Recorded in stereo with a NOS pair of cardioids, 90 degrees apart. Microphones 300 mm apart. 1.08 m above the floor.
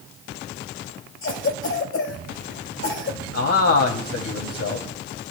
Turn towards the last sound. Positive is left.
turn(degrees=55)